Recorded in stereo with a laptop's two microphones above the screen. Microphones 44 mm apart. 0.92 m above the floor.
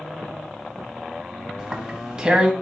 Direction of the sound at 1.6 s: 20° right (ahead or behind).